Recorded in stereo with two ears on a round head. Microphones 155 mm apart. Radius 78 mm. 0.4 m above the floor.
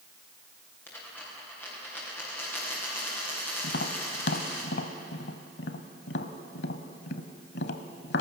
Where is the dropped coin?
10° left (ahead or behind), 8 m.